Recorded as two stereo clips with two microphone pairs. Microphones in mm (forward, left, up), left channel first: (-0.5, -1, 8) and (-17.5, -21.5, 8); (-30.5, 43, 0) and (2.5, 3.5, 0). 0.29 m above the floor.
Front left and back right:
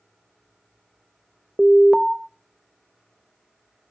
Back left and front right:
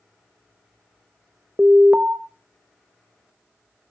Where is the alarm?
40° right, 0.7 m.